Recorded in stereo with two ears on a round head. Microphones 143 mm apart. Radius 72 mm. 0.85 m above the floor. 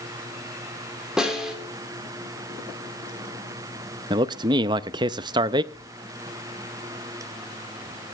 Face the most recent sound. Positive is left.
turn(degrees=-35)  # may be behind; listen again after turning